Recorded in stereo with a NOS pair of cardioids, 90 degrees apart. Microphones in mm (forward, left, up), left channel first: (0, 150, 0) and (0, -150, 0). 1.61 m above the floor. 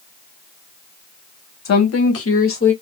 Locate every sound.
1.6 s a woman speaking: 60° left, 1.6 m; by 2.7 s 40° left, 2 m